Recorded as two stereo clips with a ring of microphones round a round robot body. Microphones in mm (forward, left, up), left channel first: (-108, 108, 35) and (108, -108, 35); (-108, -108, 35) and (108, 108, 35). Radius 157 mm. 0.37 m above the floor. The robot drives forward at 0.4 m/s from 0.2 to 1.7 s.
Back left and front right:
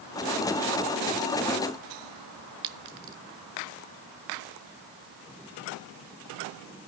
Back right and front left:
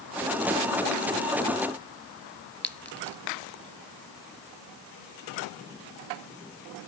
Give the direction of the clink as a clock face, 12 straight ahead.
2 o'clock.